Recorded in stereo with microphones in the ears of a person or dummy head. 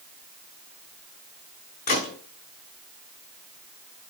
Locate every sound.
1.9 s a gunshot: 50° left (ahead or behind), 5 m